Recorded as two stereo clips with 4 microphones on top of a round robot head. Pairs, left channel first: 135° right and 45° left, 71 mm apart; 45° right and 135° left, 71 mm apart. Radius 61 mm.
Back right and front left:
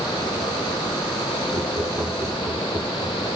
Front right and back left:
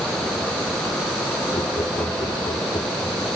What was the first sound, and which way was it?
Laughter, 5° left.